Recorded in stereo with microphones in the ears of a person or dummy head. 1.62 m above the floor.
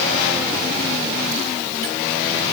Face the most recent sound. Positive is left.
No sound to turn to.